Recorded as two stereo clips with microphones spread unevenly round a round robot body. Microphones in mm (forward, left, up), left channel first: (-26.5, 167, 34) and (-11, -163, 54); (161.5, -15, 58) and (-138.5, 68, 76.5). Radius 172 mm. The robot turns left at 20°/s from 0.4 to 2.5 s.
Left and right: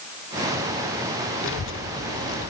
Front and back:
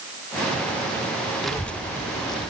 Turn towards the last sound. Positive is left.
turn(degrees=50)